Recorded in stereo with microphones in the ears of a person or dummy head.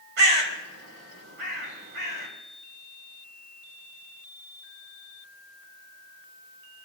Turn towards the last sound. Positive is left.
turn(degrees=-65)  # may be behind; listen again after turning